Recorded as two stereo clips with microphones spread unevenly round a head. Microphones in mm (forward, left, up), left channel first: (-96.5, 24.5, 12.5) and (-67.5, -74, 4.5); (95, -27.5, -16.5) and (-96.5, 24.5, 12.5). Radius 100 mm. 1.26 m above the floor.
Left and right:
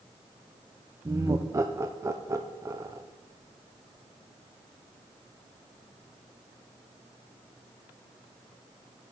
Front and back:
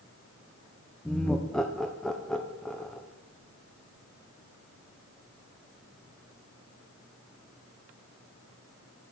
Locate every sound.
1.1 s laughter: 90° right, 0.6 m